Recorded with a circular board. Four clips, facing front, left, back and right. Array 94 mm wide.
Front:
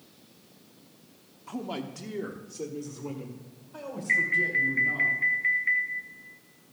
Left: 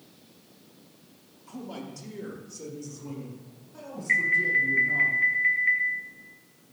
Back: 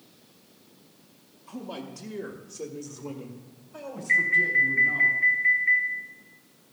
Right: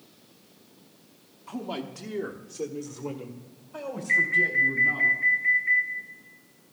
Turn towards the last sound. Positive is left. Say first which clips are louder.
# even, back 3 dB
turn(degrees=55)